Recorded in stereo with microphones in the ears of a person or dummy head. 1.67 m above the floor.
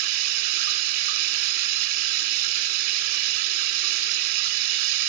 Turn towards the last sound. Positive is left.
turn(degrees=-55)  # may be behind; listen again after turning